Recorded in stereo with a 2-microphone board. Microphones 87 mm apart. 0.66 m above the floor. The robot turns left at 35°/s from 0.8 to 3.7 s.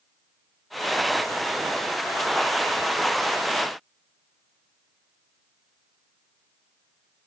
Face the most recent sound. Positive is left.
No sound to turn to.